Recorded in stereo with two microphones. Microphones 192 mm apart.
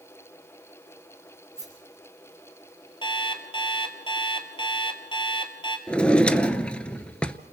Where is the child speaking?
No child speaking in this recording.